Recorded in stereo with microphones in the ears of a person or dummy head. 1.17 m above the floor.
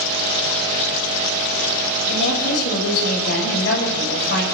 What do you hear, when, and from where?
2.1 s a woman speaking: 55° left (ahead or behind), 6 m